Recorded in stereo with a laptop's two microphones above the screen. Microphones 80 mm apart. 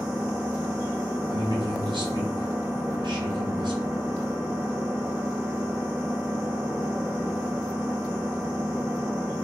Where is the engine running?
10° right (ahead or behind), 2.0 m.